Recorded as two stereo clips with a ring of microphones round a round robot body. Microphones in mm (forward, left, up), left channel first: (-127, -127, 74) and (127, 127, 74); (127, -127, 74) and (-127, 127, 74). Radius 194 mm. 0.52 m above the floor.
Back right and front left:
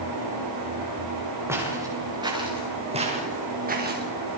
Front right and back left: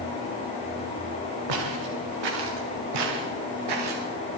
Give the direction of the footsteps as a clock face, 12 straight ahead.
8 o'clock.